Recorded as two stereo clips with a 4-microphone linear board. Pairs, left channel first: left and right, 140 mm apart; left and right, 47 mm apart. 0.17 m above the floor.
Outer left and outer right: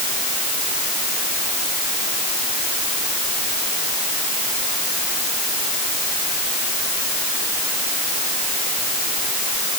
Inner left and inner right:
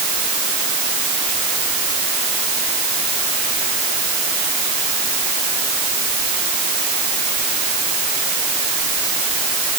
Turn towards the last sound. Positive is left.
No sound to turn to.